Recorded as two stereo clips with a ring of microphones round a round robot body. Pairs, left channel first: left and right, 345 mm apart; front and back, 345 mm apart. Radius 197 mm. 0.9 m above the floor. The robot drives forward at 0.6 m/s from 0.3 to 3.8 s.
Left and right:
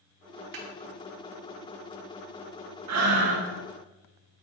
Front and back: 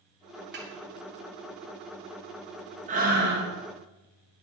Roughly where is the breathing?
Behind right.